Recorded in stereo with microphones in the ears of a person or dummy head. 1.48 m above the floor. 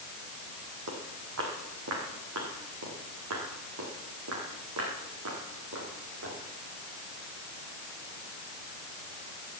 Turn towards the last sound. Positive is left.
turn(degrees=-75)  # may be behind; listen again after turning